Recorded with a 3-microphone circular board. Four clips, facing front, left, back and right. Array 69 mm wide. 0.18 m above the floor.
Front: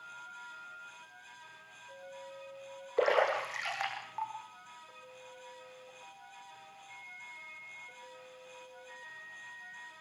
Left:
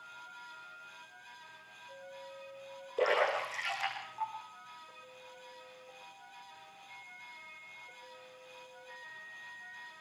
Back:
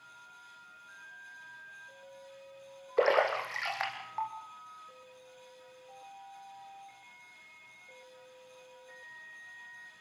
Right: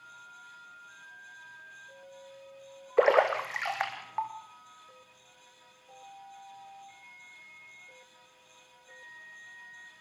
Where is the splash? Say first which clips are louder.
Right 7 dB, back 2 dB; 95° right, 5 m.